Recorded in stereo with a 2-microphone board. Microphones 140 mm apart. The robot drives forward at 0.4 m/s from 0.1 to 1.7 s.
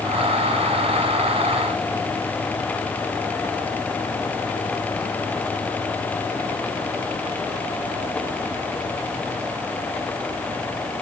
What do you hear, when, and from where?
Only background noise.